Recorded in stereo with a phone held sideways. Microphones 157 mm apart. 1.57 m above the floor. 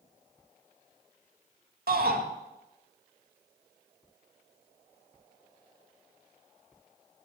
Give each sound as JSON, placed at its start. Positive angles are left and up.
{"t": 1.9, "sound": "a shout", "side_deg": -75, "distance_m": 2.5}